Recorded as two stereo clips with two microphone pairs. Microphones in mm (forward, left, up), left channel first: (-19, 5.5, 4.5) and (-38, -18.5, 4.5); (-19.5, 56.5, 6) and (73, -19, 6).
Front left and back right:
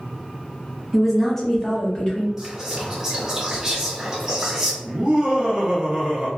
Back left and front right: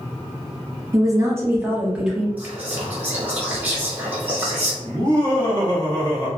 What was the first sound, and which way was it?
A woman speaking, 45° right.